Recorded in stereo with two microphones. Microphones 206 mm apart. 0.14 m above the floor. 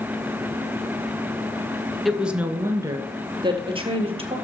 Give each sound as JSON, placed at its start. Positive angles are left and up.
{"t": 2.0, "sound": "a woman speaking", "side_deg": 0, "distance_m": 1.6}